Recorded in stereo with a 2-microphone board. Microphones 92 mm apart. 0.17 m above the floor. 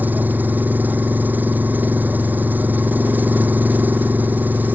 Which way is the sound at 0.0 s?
20° right (ahead or behind).